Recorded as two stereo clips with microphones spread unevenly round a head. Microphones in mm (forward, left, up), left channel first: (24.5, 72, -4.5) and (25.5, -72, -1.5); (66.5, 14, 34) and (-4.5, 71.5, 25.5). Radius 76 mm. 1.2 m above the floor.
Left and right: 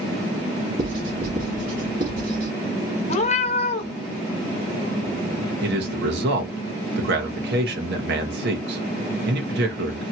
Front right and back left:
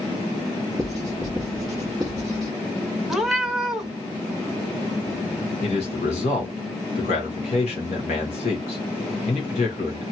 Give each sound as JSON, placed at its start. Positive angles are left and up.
{"t": 0.8, "sound": "writing", "azimuth_deg": -130, "distance_m": 1.5}
{"t": 3.1, "sound": "a cat meowing", "azimuth_deg": 50, "distance_m": 0.9}
{"t": 5.6, "sound": "a man speaking", "azimuth_deg": -75, "distance_m": 1.3}